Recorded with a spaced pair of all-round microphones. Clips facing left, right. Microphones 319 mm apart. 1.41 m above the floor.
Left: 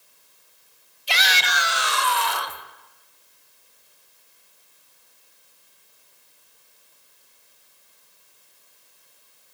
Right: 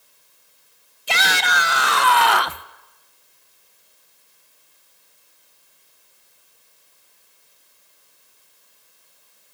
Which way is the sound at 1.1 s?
60° right (ahead or behind).